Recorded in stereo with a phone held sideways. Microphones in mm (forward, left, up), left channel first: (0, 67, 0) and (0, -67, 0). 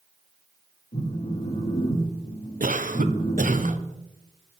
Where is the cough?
80° right, 1.0 m.